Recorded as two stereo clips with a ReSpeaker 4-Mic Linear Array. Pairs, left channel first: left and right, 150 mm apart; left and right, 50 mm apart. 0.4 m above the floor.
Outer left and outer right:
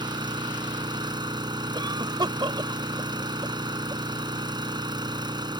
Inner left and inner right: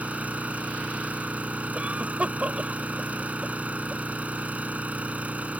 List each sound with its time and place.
0.0 s an engine running: 30° right (ahead or behind)
1.8 s a cough: 30° right (ahead or behind)